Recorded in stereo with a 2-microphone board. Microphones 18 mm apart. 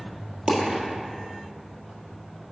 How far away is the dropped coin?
About 1.6 m.